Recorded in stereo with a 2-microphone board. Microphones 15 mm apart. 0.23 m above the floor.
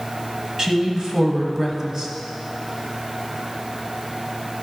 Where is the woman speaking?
40° right (ahead or behind), 1.3 m.